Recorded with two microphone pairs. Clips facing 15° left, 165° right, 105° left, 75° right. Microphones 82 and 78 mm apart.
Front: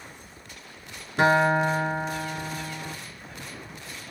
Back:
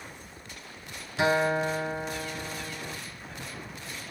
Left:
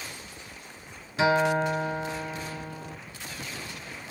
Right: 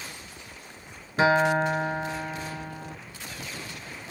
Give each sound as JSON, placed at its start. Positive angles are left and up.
{"t": 1.2, "sound": "a guitar", "azimuth_deg": -25, "distance_m": 0.8}